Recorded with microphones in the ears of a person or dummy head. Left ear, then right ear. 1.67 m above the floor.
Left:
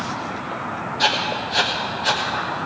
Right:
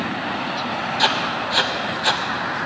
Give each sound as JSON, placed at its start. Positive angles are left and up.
{"t": 1.0, "sound": "writing", "side_deg": -25, "distance_m": 0.9}